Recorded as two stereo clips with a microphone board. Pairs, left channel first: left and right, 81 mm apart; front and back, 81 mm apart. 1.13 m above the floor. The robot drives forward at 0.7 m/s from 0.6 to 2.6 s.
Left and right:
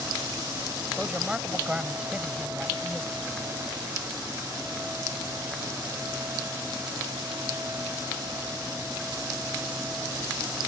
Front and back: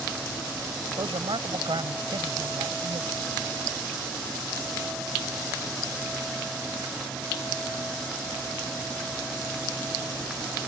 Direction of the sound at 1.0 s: 170° right.